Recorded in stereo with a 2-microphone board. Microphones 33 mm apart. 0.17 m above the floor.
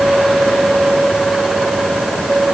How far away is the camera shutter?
I don't hear a camera shutter.